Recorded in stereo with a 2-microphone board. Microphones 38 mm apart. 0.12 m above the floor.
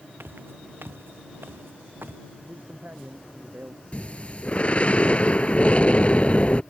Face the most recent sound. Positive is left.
turn(degrees=35)  # may be behind; listen again after turning